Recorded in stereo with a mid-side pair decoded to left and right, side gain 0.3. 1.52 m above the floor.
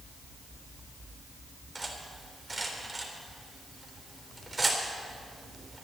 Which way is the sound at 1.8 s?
30° right.